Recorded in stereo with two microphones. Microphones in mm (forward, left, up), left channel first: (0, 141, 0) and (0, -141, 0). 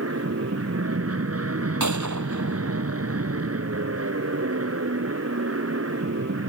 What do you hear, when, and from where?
0.0 s an aircraft: 55° right (ahead or behind)
1.8 s a gunshot: 85° right